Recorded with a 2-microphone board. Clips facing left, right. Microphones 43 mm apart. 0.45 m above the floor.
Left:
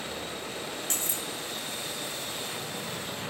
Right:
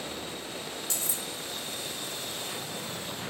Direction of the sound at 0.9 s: 45° left (ahead or behind).